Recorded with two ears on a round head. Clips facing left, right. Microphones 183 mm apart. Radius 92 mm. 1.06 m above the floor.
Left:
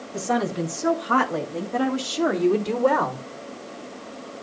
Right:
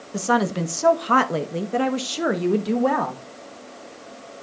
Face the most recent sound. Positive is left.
turn(degrees=5)  # may be behind; listen again after turning